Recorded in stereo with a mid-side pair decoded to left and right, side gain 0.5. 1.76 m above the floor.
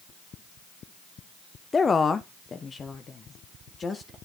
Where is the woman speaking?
30° left, 0.7 m; by 4.2 s 40° left, 2.5 m.